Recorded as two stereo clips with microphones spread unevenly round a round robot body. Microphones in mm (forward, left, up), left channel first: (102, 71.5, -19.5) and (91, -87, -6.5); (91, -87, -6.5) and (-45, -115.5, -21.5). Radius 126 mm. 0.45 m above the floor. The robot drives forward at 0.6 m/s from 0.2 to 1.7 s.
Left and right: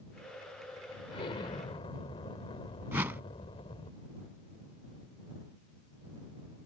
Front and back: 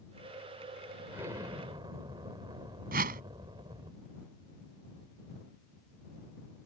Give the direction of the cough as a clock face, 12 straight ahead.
No cough in this recording.